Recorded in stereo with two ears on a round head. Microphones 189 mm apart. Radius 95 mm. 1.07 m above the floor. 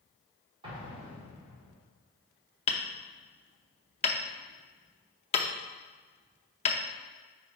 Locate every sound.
0.6 s an explosion: 25° right (ahead or behind), 1.6 m
2.7 s hammering: 30° left (ahead or behind), 0.6 m